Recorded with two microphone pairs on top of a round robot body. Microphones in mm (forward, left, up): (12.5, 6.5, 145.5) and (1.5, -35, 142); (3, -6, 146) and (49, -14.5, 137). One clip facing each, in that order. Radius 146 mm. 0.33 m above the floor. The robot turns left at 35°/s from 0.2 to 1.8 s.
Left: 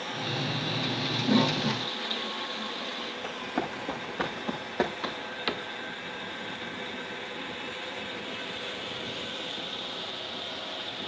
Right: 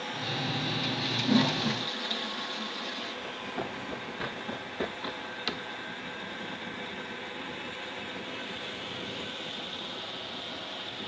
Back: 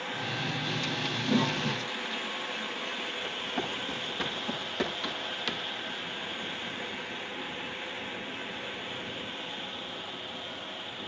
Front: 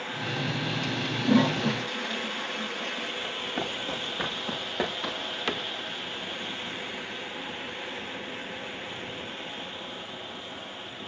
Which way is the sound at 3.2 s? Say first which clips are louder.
Left 6 dB, front 2 dB; 70° left.